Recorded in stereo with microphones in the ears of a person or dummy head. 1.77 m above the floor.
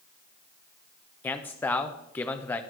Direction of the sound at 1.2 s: 10° left (ahead or behind).